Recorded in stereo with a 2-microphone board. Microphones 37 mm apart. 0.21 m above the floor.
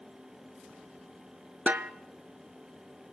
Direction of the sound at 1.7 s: 45° right (ahead or behind).